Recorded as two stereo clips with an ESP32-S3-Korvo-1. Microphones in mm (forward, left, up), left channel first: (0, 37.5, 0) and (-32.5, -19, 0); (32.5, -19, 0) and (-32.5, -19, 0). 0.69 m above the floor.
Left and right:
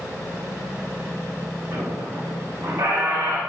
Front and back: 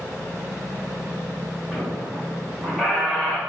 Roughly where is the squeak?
Right.